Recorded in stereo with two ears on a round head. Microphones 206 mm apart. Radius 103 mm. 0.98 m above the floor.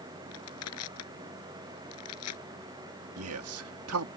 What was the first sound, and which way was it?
Crushing, 70° left (ahead or behind).